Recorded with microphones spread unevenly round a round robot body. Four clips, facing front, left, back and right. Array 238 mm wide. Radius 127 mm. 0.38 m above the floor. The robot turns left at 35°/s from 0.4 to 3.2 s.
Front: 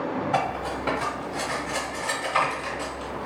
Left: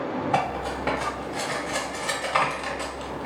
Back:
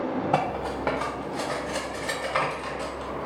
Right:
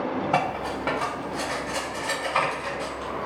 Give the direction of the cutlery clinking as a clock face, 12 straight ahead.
5 o'clock.